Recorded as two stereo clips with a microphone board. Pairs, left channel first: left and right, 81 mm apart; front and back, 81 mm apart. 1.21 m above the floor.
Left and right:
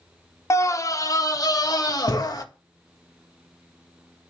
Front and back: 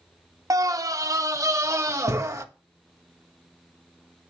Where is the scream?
140° left, 0.8 m; by 2.5 s 130° left, 1.7 m.